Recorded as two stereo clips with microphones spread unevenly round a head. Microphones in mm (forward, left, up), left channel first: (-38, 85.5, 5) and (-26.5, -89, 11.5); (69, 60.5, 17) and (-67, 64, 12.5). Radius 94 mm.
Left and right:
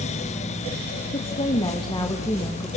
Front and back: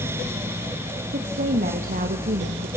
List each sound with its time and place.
1.1 s a woman speaking: 150° left, 2.5 m; by 2.7 s 175° left, 1.5 m